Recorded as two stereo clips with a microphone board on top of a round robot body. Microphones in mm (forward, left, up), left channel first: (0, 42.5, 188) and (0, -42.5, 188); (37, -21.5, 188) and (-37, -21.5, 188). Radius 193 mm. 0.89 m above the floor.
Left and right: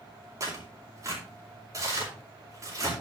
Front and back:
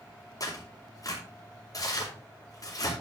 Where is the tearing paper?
40° right, 4.5 m.